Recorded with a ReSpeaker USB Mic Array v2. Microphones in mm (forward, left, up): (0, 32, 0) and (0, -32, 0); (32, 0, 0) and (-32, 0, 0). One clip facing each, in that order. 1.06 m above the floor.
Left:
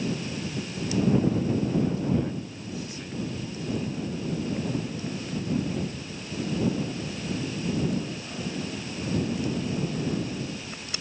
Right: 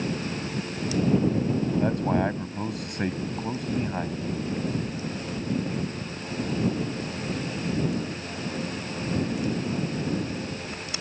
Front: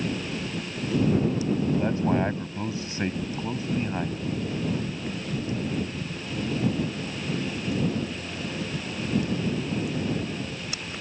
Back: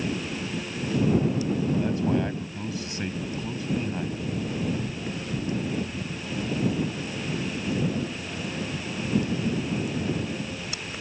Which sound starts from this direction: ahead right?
A man speaking, at 1.8 s.